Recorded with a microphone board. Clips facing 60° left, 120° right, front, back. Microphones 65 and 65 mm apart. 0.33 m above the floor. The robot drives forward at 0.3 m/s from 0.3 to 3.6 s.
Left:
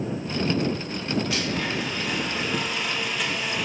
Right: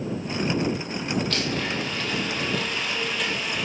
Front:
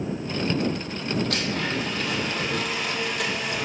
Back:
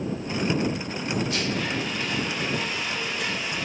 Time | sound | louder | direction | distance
1.3 | a blender | even, even | 20° right | 2.5 m